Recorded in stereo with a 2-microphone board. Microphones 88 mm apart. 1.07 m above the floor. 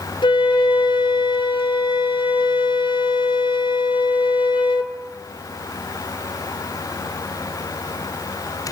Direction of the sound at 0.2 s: 65° left (ahead or behind).